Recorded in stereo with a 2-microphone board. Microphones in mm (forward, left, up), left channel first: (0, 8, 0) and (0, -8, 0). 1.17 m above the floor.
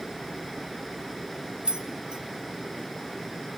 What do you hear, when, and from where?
1.6 s keys jangling: 80° right, 1.1 m